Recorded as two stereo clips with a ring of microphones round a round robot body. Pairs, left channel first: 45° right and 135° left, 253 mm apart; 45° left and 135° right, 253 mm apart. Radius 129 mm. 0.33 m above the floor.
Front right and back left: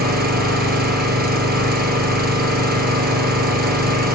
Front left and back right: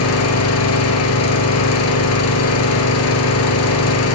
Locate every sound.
0.0 s an engine running: 80° left, 1.6 m